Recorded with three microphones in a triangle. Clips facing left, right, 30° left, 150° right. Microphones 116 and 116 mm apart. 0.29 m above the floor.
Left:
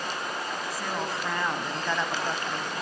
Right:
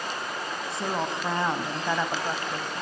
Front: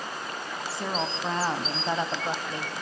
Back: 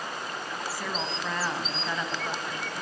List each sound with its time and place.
0.7 s a woman speaking: 30° right, 2.5 m; by 2.7 s straight ahead, 1.8 m